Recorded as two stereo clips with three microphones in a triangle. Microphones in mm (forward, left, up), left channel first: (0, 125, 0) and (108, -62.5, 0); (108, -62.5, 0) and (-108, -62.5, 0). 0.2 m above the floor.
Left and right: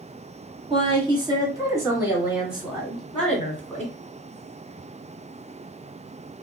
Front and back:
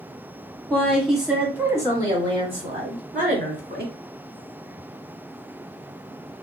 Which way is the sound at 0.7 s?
75° right.